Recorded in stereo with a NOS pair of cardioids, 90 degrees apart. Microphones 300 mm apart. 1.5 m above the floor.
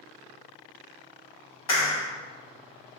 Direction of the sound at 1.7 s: 60° left.